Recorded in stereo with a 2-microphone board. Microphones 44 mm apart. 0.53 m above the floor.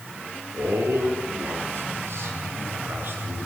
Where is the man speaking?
75° right (ahead or behind), 7.5 m; by 3.5 s 50° right (ahead or behind), 9.5 m.